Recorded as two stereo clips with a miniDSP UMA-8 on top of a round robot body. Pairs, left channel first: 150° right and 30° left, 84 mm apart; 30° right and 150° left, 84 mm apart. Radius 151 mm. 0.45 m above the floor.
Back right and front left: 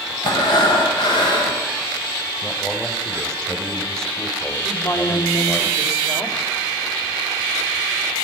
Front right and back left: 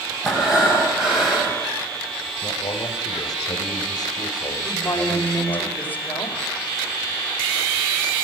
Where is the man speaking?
70° right, 4 m.